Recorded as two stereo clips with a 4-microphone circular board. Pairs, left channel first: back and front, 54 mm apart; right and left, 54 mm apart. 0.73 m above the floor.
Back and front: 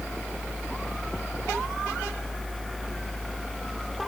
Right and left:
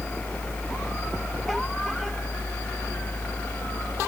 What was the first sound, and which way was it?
Only background noise.